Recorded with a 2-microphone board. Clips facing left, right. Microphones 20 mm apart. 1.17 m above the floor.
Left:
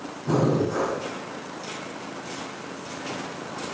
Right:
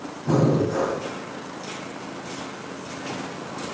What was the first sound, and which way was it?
Breathing, 35° right (ahead or behind).